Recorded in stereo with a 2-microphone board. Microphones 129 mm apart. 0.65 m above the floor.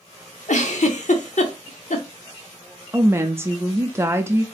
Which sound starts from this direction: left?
A giggle, at 0.5 s.